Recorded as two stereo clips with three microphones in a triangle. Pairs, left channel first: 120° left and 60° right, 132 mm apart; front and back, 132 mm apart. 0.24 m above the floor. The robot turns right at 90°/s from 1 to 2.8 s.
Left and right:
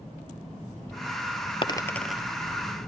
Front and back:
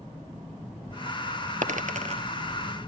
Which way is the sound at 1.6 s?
165° left.